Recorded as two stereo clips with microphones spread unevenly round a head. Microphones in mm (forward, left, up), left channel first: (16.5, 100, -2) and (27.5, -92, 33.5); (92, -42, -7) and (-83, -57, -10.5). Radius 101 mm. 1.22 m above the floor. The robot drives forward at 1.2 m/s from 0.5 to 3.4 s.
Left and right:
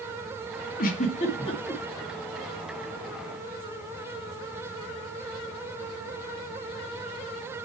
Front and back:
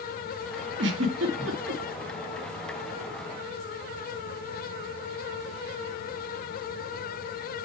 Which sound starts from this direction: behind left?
A giggle, at 0.8 s.